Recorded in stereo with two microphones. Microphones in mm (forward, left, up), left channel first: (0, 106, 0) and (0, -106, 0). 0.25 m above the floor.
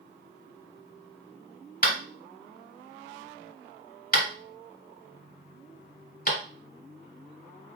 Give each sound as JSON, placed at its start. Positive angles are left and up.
{"t": 1.8, "sound": "tapping", "side_deg": 50, "distance_m": 1.2}